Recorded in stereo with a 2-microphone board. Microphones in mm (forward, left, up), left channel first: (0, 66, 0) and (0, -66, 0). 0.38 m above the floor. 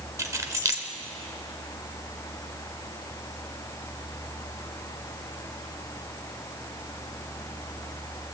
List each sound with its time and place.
0.2 s keys jangling: 25° right (ahead or behind), 0.9 m